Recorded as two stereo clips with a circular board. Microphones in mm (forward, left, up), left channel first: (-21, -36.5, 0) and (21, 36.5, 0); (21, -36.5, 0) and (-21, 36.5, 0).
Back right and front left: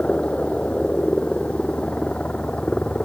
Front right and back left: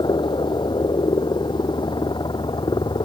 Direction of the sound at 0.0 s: 45° right.